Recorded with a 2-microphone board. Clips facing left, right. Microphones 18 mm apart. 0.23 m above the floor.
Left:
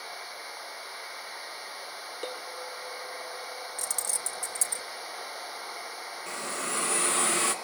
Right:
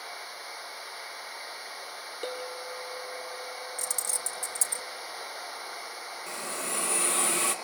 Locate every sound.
2.2 s a clink: 5° left (ahead or behind), 6 m
3.8 s keys jangling: 5° left (ahead or behind), 1.2 m
6.3 s a hiss: 25° left (ahead or behind), 1.8 m